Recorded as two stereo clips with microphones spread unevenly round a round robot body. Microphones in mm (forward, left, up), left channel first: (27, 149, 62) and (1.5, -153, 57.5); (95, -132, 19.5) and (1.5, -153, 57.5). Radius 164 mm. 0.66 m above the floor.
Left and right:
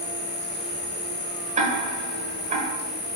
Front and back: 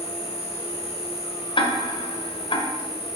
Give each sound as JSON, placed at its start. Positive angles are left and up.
{"t": 0.0, "sound": "an insect", "azimuth_deg": 40, "distance_m": 1.2}
{"t": 1.6, "sound": "ticking", "azimuth_deg": -25, "distance_m": 1.3}